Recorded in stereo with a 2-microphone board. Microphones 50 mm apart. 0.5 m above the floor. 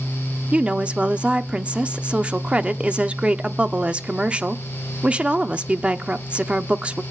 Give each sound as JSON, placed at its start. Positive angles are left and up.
{"t": 0.5, "sound": "a woman speaking", "side_deg": -25, "distance_m": 0.7}